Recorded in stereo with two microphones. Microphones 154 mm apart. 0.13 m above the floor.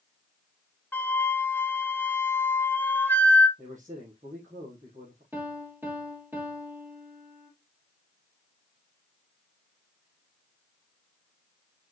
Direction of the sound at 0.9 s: 15° left (ahead or behind).